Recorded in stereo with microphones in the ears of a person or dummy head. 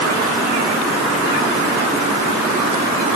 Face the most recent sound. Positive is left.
No sound to turn to.